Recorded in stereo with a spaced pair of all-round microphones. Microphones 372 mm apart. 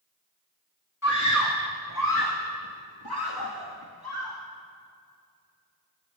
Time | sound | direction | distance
1.0 | a scream | 45° left (ahead or behind) | 2.5 m